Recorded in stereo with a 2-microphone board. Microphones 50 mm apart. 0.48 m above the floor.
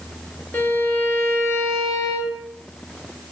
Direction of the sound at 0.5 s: 50° left (ahead or behind).